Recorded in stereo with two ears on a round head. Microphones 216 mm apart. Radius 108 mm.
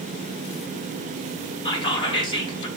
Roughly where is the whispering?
Left.